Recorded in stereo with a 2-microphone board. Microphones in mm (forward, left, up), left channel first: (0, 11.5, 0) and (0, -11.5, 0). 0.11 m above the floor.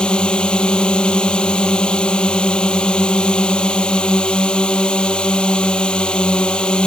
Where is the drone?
45° left (ahead or behind).